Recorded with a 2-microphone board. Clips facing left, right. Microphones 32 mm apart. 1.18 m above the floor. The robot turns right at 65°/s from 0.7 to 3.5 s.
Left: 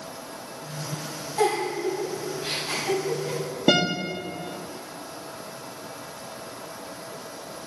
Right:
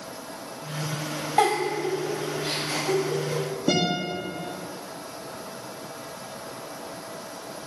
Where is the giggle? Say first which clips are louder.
Right 1 dB; 60° right (ahead or behind), 3 m; by 3.4 s 65° left (ahead or behind), 3 m.